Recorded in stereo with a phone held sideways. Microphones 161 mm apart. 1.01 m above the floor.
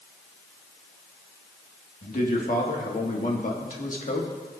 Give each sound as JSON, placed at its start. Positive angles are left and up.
{"t": 2.0, "sound": "a man speaking", "side_deg": 55, "distance_m": 1.5}